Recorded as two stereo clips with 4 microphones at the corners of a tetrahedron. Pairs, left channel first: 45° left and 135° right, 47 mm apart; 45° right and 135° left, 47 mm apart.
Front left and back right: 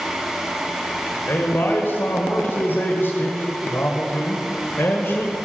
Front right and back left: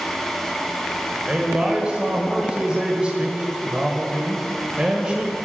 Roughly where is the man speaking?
Left.